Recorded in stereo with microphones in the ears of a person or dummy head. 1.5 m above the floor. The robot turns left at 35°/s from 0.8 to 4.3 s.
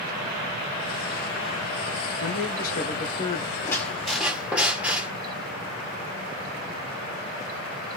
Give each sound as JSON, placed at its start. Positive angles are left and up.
{"t": 2.2, "sound": "a man speaking", "azimuth_deg": 65, "distance_m": 1.7}
{"t": 3.6, "sound": "a squeak", "side_deg": 15, "distance_m": 1.5}